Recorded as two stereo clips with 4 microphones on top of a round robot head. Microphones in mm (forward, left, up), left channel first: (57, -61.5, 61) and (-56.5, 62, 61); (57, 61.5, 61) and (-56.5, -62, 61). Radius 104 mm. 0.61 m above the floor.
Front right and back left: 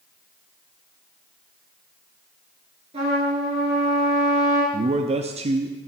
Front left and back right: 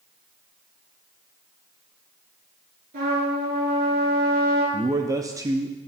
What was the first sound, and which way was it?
A trumpet, 170° right.